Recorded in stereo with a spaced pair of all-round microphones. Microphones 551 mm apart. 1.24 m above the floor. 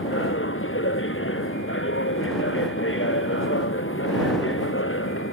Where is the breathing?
I don't hear breathing.